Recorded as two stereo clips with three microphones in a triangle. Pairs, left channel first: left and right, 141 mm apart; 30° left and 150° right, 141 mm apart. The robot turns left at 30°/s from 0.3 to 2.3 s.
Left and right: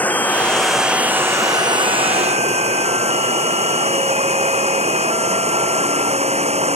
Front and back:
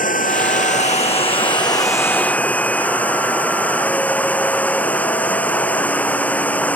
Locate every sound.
0.0 s running water: 10° left; by 6.8 s 50° right